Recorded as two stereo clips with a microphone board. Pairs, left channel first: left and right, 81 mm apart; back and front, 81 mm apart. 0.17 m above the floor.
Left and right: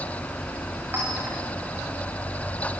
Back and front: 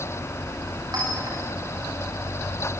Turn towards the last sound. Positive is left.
turn(degrees=-30)